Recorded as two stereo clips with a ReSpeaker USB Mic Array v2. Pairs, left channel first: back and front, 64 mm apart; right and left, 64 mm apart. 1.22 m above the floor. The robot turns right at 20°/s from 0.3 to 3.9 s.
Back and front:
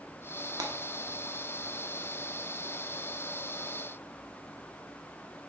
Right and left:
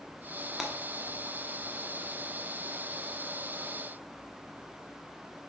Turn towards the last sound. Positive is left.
turn(degrees=70)